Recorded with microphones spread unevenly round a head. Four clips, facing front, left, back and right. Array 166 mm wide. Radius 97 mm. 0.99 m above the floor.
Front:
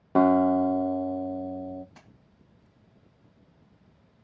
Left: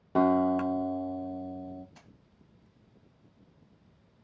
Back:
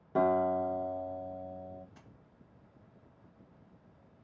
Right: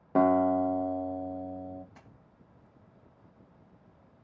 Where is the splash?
15° right, 3 m.